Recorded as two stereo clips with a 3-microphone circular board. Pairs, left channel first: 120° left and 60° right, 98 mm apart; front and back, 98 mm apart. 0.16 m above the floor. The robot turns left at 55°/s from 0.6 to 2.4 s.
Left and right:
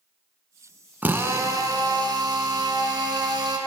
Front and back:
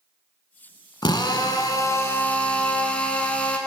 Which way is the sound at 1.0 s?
5° left.